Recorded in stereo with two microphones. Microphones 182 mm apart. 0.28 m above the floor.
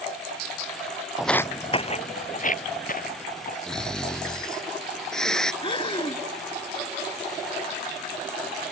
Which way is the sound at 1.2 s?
5° right (ahead or behind).